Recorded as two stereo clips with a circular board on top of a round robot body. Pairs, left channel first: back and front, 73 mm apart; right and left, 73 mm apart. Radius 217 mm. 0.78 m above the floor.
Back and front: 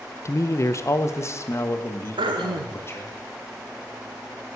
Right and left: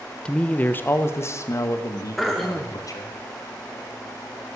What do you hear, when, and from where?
0.2 s a man speaking: 160° right, 0.9 m; by 3.2 s 125° right, 2.5 m
2.2 s throat clearing: straight ahead, 0.6 m